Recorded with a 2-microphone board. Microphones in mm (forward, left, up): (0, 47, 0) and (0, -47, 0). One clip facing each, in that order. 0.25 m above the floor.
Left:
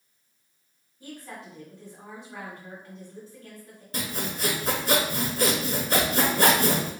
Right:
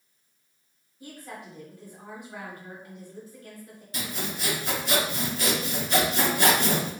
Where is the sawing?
45° left (ahead or behind), 0.6 m.